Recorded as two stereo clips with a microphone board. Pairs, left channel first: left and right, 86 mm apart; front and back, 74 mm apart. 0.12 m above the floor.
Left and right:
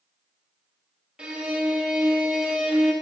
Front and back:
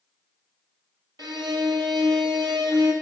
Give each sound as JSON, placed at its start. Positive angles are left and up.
{"t": 1.2, "sound": "a violin", "azimuth_deg": -170, "distance_m": 1.9}